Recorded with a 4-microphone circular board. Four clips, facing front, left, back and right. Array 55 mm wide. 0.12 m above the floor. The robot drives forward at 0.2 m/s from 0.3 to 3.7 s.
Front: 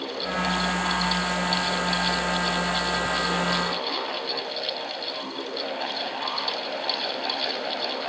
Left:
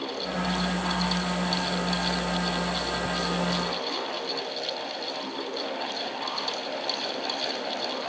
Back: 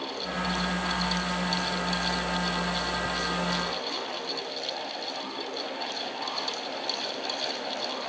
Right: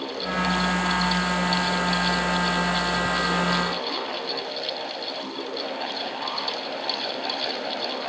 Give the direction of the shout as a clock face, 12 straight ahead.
I don't hear a shout.